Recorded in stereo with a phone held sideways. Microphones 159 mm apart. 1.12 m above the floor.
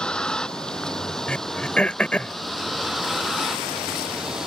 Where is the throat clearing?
5° left (ahead or behind).